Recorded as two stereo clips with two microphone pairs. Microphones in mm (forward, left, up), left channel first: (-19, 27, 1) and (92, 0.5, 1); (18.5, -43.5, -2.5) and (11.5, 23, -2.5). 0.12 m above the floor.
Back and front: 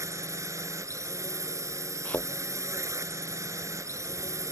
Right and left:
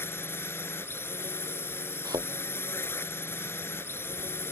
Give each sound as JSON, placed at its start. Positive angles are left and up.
{"t": 0.0, "sound": "a drone", "azimuth_deg": -60}
{"t": 2.0, "sound": "a thud", "azimuth_deg": 90}